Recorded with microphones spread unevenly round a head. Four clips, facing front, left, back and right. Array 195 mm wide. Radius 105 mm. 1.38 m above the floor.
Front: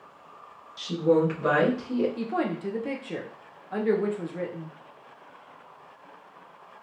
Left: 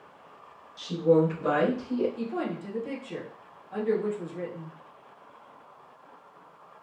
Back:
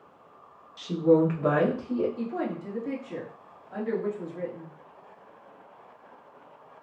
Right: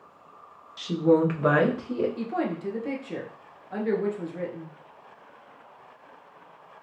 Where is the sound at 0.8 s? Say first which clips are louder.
Right 1 dB, back 1 dB; 85° right, 1.1 m; by 2.1 s 65° right, 1.9 m.